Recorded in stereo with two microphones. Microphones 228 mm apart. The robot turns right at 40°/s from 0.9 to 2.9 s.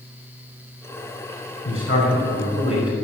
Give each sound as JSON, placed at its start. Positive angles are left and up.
{"t": 1.6, "sound": "a man speaking", "azimuth_deg": 110, "distance_m": 4.5}